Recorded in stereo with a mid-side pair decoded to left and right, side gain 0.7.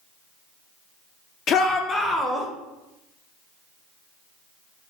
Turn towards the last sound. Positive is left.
turn(degrees=0)